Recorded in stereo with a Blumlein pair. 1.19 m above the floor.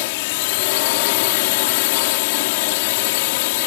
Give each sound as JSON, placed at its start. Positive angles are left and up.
{"t": 0.0, "sound": "a drone", "azimuth_deg": 50}